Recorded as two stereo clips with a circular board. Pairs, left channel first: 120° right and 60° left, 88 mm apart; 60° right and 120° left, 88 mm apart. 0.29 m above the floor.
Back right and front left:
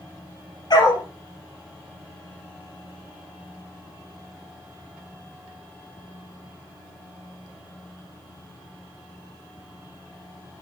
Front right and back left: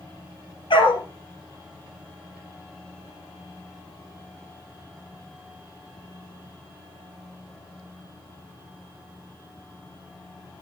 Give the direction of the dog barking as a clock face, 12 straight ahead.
3 o'clock.